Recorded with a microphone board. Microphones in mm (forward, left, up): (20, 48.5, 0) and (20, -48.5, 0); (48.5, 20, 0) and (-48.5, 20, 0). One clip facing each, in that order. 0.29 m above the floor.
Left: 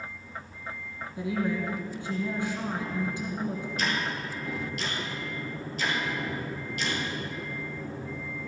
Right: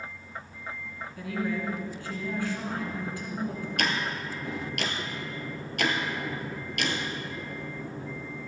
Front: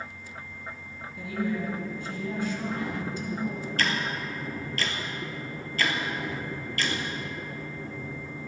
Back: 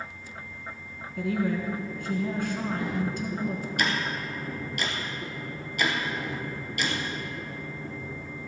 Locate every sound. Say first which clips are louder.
1.2 s a woman speaking: left 2 dB, back 3 dB; 160° left, 2.5 m
3.8 s ticking: right 2 dB, even; 105° right, 1.3 m